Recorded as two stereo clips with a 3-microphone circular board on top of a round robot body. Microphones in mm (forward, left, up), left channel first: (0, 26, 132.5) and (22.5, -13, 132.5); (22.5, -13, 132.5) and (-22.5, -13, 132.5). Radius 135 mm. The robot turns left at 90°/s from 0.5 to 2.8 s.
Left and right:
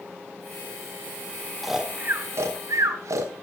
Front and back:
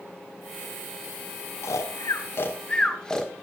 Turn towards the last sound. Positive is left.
turn(degrees=-75)